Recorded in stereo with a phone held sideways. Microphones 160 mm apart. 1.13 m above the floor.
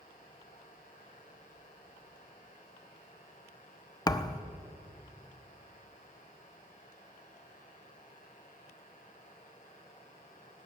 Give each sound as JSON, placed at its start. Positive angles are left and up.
{"t": 0.0, "sound": "a fan", "side_deg": 55, "distance_m": 2.0}
{"t": 4.1, "sound": "a thud", "side_deg": 25, "distance_m": 0.6}